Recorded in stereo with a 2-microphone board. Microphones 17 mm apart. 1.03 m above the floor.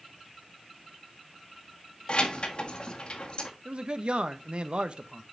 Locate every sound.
2.1 s keys jangling: 65° left (ahead or behind), 1.4 m
3.6 s a man speaking: 65° right (ahead or behind), 0.8 m